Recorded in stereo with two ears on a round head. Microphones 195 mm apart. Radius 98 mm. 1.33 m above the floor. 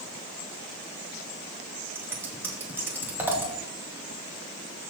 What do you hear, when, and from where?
1.9 s scissors: 10° right (ahead or behind), 2.5 m